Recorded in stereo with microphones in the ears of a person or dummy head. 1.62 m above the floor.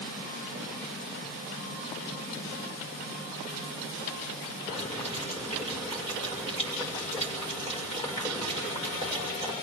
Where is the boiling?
30° left (ahead or behind), 7 m.